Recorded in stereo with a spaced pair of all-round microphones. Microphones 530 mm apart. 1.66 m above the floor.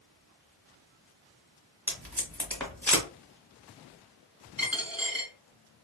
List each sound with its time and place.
1.9 s tape being pulled: 5° left (ahead or behind), 0.9 m
4.6 s a dropped coin: 15° right (ahead or behind), 1.8 m